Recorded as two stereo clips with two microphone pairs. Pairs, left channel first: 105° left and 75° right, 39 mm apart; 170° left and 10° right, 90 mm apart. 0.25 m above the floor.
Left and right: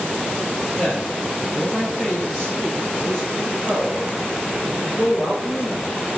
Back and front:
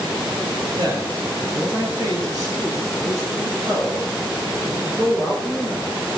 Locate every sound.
0.8 s a man speaking: 35° left, 4 m; by 6.2 s 40° left, 7 m